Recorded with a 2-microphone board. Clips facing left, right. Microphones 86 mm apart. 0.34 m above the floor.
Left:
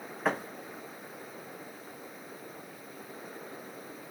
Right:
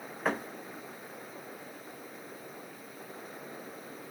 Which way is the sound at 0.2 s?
Centre (ahead or behind).